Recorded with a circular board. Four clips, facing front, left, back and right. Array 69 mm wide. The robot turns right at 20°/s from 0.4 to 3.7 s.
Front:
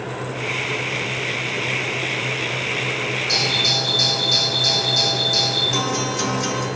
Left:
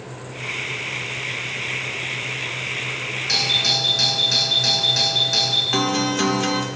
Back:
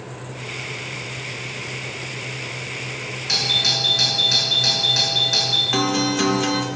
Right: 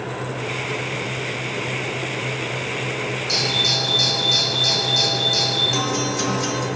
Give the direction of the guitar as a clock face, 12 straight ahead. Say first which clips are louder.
Left 6 dB, back 6 dB; 7 o'clock.